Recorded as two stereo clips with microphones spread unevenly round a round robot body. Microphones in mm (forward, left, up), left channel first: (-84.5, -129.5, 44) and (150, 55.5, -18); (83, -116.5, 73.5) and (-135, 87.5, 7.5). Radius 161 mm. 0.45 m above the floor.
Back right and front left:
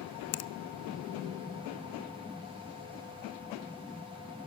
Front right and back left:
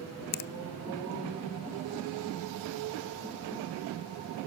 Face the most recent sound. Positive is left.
turn(degrees=-105)